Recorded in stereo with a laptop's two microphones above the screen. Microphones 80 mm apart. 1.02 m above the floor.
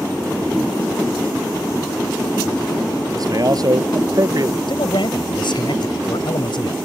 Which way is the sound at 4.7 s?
80° left.